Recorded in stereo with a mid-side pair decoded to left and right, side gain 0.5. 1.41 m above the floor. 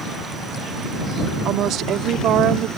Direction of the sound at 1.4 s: 70° right.